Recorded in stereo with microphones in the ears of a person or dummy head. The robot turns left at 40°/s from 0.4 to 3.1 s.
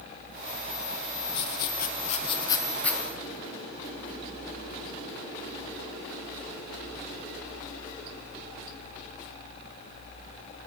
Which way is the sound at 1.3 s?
80° left.